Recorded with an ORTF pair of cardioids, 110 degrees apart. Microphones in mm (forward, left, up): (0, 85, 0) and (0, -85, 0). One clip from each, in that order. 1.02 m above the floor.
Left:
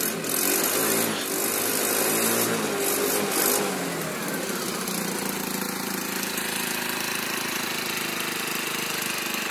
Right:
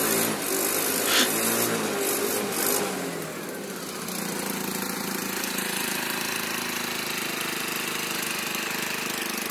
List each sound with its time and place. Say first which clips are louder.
1.1 s a gasp: right 6 dB; 65° right, 1.2 m